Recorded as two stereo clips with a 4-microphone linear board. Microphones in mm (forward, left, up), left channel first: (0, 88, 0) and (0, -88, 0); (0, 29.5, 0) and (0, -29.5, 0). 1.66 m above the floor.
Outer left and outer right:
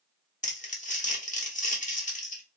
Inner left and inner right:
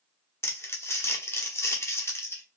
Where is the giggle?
No giggle in this recording.